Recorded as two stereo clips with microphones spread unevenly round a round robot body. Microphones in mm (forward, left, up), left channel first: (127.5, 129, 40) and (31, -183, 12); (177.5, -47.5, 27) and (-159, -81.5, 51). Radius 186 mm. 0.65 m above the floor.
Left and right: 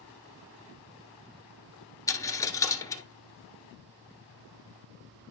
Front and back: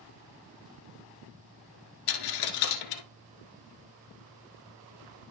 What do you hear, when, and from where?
2.1 s a dropped coin: 5° right, 1.0 m